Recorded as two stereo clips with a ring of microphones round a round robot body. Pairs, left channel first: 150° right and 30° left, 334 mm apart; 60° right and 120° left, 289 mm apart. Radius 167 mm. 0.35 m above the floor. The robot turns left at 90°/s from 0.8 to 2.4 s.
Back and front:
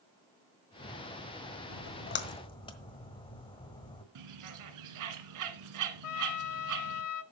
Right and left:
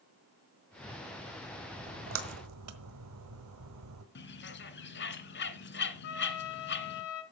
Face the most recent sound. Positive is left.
turn(degrees=-115)